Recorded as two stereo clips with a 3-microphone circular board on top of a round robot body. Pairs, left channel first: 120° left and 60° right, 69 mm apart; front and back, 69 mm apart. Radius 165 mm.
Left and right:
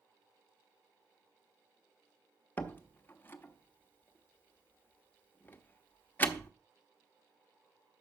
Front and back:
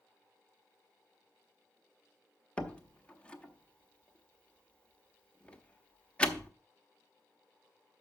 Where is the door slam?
70° left, 1.2 m.